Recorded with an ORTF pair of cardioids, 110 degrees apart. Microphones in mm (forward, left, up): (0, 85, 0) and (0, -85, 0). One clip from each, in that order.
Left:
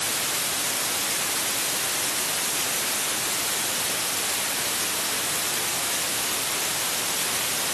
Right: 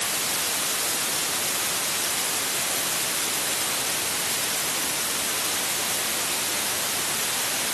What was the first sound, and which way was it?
Only background noise.